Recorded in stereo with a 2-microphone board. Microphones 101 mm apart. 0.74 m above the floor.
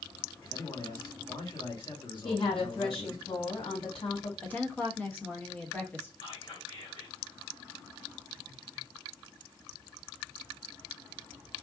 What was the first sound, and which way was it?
A man speaking, 50° left (ahead or behind).